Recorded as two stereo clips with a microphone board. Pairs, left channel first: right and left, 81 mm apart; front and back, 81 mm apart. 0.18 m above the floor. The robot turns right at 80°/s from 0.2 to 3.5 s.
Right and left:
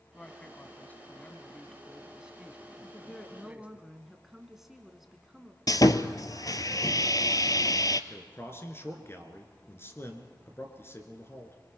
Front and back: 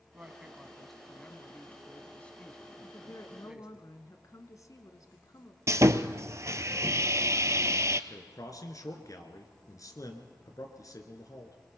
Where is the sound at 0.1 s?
140° right, 1.0 m; by 3.8 s 125° left, 1.0 m.